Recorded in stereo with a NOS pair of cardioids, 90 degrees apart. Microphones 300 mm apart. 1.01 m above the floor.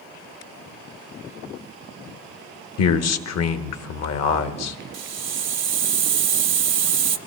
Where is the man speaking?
60° left, 1.3 m.